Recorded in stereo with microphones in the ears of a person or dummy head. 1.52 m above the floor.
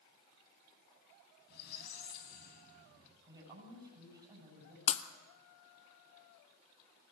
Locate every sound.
1.5 s a squeak: 55° left (ahead or behind), 3 m
3.3 s a woman speaking: 15° right (ahead or behind), 7 m
4.9 s breaking glass: 35° left (ahead or behind), 1.4 m